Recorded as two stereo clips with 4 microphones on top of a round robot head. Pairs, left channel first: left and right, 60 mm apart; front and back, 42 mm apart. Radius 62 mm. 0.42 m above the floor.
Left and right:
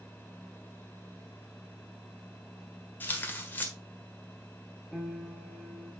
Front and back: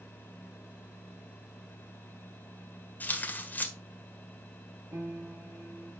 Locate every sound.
3.0 s tearing paper: 35° left, 1.6 m
4.9 s a piano: 175° left, 3 m